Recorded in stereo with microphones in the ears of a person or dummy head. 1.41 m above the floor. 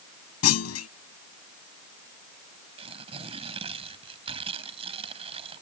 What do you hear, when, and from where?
0.4 s a clunk: 85° left
2.8 s tearing paper: 30° right (ahead or behind)